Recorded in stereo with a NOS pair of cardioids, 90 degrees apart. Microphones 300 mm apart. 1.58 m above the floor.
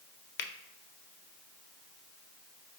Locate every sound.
0.4 s a finger snap: 35° left, 0.5 m